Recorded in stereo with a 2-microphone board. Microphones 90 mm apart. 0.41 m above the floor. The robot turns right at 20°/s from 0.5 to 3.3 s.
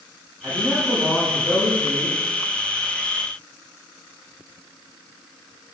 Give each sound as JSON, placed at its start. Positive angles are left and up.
{"t": 0.4, "sound": "a man speaking", "azimuth_deg": -25, "distance_m": 3.0}